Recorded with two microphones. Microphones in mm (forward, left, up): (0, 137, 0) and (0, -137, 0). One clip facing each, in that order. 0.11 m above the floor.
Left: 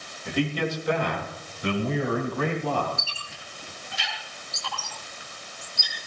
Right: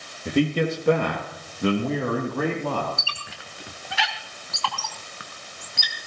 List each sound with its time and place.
0.2 s a man speaking: 45° right (ahead or behind), 3 m; by 2.9 s 65° right (ahead or behind), 4.5 m
3.0 s a squeak: 75° right (ahead or behind), 1.6 m